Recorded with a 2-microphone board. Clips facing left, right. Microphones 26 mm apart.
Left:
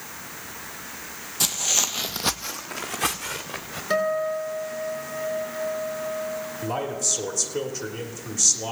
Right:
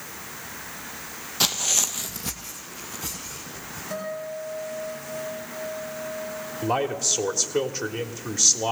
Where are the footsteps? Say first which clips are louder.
Right 1 dB; 25° right (ahead or behind), 0.7 m; by 3.8 s 85° left, 2.5 m.